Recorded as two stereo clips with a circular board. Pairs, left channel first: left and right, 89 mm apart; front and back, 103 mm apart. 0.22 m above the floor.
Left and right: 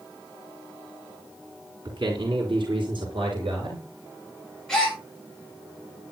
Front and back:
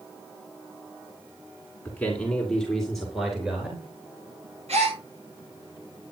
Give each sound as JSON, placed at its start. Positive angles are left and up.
{"t": 1.9, "sound": "a man speaking", "azimuth_deg": -75, "distance_m": 3.0}
{"t": 4.7, "sound": "a gasp", "azimuth_deg": 175, "distance_m": 8.0}